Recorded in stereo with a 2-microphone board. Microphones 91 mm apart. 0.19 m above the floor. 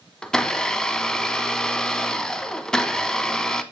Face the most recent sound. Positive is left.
turn(degrees=5)  # may be behind; listen again after turning